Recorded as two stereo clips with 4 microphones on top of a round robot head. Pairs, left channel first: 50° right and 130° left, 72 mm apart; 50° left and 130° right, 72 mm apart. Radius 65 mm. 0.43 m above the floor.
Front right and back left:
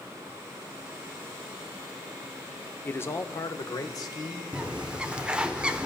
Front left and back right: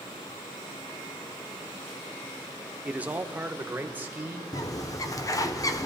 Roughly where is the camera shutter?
No camera shutter in this recording.